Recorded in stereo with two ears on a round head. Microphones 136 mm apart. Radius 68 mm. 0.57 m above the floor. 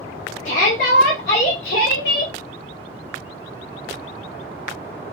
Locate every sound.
0.5 s a shout: 50° left (ahead or behind), 1.4 m; by 2.3 s 75° left (ahead or behind), 2.5 m